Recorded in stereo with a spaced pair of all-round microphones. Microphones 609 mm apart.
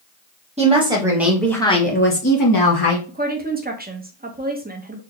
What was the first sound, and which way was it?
A woman speaking, 10° right (ahead or behind).